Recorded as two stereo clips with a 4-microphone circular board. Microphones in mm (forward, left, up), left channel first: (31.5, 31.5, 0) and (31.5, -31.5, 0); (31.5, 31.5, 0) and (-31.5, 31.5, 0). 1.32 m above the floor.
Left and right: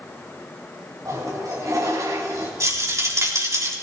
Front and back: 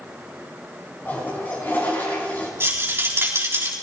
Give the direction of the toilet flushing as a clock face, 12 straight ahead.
2 o'clock.